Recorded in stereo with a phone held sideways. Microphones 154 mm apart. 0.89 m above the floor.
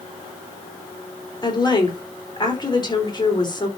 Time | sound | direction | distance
1.4 | a woman speaking | 30° left (ahead or behind) | 3.5 m